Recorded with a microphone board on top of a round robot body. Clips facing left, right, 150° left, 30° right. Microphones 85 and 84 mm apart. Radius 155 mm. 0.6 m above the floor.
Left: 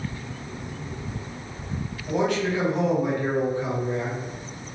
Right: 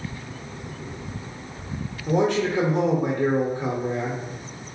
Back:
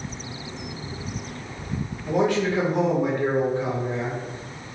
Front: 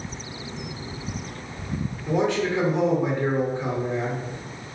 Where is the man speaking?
130° right, 1.0 m.